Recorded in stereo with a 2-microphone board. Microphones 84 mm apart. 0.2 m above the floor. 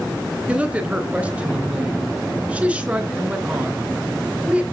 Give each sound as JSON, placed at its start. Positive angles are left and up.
{"t": 0.5, "sound": "a woman speaking", "side_deg": -15, "distance_m": 2.5}